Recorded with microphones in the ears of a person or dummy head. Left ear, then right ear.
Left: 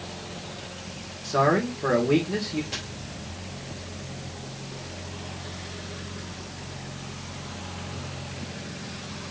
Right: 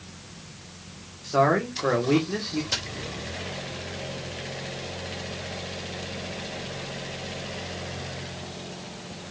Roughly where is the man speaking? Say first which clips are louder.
Right 1 dB; centre.